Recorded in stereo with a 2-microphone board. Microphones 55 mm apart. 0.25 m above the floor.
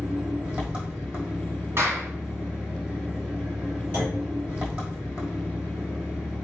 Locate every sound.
0.0 s an engine running: 25° right (ahead or behind), 2.5 m
1.8 s a clap: 50° right (ahead or behind), 1.6 m
3.9 s a clunk: 25° right (ahead or behind), 3 m